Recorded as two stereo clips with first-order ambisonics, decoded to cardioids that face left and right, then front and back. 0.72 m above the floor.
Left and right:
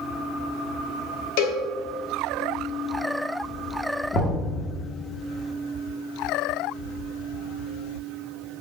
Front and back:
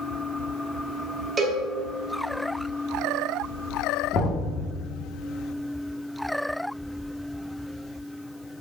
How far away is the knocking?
About 0.8 m.